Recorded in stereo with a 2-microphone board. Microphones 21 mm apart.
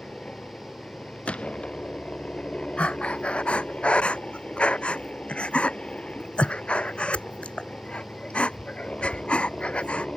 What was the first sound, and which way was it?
A helicopter, 65° left (ahead or behind).